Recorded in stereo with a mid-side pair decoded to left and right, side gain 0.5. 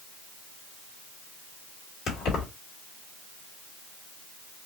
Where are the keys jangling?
60° left, 2.5 m.